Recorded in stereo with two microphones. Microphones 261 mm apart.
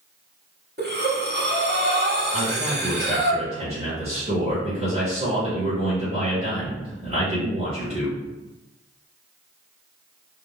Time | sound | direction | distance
0.8 | breathing | 40° right (ahead or behind) | 0.7 m
2.3 | a man speaking | 25° right (ahead or behind) | 1.5 m